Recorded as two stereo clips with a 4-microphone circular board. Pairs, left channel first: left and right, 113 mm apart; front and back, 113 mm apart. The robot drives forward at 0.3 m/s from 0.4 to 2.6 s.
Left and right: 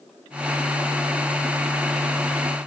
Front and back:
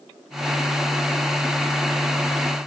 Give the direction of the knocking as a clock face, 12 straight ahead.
No knocking in this recording.